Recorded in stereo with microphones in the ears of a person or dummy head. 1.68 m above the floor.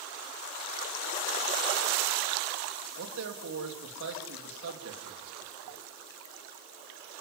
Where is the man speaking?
70° right (ahead or behind), 3 m.